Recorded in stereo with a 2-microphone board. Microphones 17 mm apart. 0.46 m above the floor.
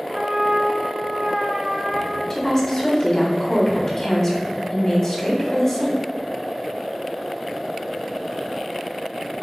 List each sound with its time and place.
0.1 s a trumpet: 60° right (ahead or behind), 0.9 m
2.3 s a woman speaking: 35° left (ahead or behind), 1.2 m